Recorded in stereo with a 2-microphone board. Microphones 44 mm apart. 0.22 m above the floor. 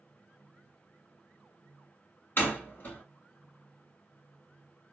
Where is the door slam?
45° left (ahead or behind), 2.0 m.